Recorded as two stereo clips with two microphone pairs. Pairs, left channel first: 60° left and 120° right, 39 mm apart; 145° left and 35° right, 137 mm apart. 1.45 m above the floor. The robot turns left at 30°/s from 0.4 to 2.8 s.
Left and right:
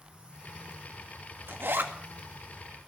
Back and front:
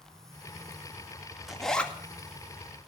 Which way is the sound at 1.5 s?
120° right.